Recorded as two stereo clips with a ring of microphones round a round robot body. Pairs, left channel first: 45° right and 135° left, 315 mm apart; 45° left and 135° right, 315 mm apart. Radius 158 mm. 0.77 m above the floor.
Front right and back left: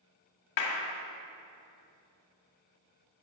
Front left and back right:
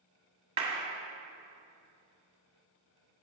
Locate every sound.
0.6 s a clap: 65° right, 1.5 m